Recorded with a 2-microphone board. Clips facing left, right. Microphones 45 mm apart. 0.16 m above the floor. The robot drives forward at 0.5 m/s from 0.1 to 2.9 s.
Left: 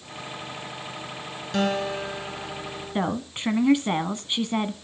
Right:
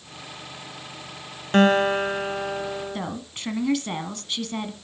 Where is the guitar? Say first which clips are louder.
Right 7 dB; 45° right (ahead or behind), 1.3 m; by 3.0 s 50° right (ahead or behind), 1.2 m.